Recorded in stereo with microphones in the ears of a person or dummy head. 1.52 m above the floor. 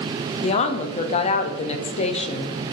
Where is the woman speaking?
35° left (ahead or behind), 0.7 m.